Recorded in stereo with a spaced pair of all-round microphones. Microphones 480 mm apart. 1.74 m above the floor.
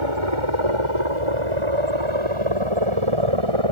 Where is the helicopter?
75° right (ahead or behind).